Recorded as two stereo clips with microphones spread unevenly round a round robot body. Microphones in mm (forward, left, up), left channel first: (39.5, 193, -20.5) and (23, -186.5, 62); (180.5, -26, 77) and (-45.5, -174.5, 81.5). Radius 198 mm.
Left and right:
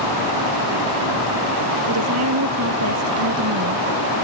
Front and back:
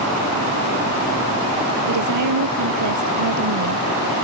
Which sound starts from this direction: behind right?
A woman speaking, at 1.9 s.